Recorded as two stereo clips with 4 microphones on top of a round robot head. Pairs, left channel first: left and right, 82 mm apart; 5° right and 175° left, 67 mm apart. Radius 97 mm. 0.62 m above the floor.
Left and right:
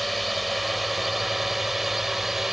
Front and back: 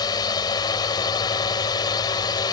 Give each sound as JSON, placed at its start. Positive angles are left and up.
{"t": 0.0, "sound": "a drone", "azimuth_deg": 0}